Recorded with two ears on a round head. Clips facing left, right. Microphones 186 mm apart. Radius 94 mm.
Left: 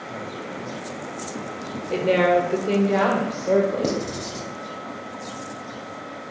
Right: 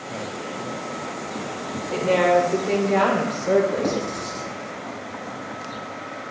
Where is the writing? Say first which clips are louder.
Even; 35° left (ahead or behind), 1.0 m.